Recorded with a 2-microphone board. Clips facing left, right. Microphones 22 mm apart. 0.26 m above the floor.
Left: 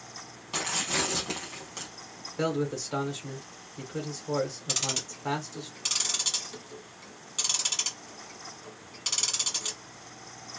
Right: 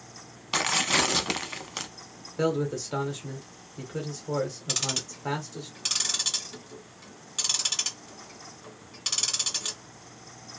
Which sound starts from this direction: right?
Tearing paper, at 0.5 s.